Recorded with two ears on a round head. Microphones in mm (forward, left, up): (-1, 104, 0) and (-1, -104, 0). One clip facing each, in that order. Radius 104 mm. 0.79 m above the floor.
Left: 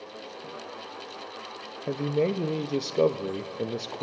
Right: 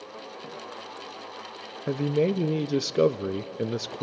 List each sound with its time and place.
1.9 s a man speaking: 15° right (ahead or behind), 0.5 m